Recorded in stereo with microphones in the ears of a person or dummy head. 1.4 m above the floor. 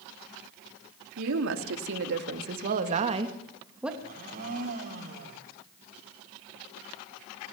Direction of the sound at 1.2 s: 75° right (ahead or behind).